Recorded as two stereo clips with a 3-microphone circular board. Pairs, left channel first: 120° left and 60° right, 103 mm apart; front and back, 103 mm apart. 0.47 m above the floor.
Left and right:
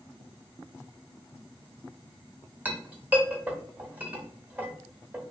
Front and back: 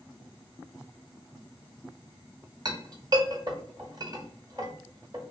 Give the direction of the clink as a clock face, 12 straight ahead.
4 o'clock.